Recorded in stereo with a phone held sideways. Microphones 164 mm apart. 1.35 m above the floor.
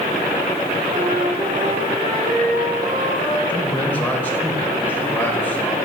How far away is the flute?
About 6 m.